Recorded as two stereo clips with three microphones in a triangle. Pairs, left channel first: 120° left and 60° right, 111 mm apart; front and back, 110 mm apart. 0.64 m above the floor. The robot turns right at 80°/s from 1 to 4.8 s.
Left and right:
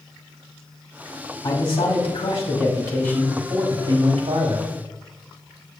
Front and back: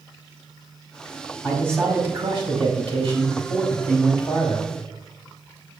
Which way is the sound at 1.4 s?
60° left.